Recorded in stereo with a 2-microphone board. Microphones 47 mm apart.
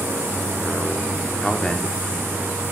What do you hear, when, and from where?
1.4 s a man speaking: 15° left (ahead or behind), 0.7 m